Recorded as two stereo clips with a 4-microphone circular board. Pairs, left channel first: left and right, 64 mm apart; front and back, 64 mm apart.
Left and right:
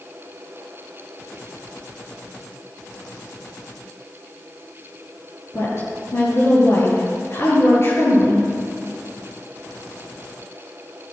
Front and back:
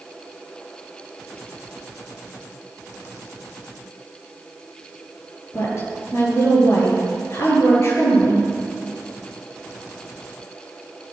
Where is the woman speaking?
45° left, 7.5 m.